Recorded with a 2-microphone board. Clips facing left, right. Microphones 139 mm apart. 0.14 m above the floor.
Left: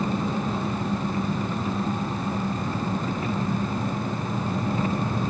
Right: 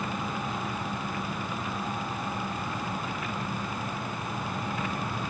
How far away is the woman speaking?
No woman speaking in this recording.